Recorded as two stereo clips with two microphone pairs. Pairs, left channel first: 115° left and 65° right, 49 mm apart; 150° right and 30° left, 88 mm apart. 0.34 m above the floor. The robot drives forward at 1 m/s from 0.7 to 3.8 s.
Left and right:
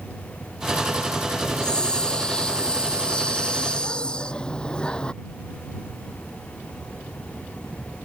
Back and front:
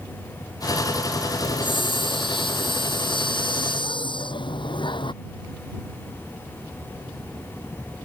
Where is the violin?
I don't hear a violin.